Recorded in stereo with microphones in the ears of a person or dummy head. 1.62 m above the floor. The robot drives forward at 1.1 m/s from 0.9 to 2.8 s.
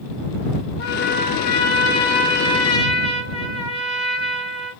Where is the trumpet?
50° left (ahead or behind), 2.5 m; by 4.7 s 30° left (ahead or behind), 4 m.